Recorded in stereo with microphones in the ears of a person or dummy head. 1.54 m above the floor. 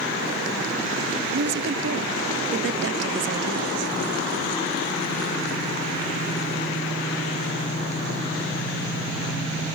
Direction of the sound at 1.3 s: 65° right (ahead or behind).